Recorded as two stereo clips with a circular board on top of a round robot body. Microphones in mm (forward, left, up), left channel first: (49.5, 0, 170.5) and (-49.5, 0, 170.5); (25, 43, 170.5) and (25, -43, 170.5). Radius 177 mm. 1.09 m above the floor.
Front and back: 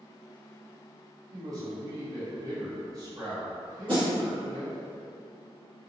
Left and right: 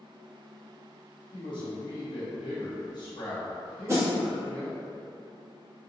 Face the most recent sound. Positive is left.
turn(degrees=-145)